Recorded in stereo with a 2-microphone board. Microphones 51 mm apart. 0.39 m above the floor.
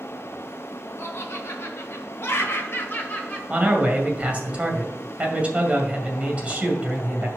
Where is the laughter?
50° left (ahead or behind), 2.5 m; by 3.4 s 30° left (ahead or behind), 1.4 m.